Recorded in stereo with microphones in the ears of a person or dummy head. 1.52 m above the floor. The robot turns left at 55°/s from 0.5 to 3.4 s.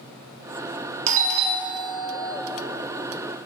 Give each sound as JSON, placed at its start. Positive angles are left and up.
{"t": 1.1, "sound": "a doorbell", "azimuth_deg": -85, "distance_m": 0.7}